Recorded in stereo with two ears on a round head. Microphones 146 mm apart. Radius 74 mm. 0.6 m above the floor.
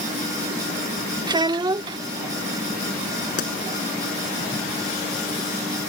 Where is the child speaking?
25° right (ahead or behind).